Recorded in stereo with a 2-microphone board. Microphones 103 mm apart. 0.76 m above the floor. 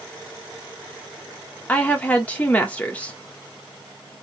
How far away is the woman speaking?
About 1.5 m.